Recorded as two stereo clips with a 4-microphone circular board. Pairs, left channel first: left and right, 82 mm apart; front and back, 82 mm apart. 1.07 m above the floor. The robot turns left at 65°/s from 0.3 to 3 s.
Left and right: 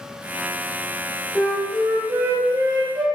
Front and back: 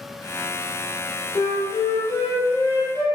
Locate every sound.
1.4 s a flute: 20° left, 0.9 m; by 3.0 s 85° right, 0.9 m